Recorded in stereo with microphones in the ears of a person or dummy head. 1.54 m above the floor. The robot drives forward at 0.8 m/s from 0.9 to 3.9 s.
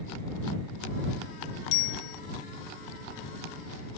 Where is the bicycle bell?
65° left (ahead or behind); by 2.2 s 60° left (ahead or behind).